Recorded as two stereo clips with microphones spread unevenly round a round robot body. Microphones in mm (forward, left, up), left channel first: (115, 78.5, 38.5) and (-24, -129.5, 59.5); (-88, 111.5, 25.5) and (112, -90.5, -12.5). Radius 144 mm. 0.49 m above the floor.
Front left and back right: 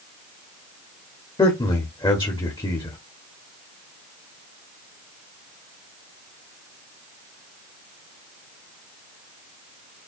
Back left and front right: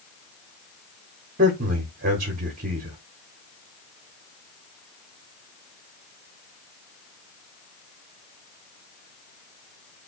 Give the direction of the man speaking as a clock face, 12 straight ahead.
12 o'clock.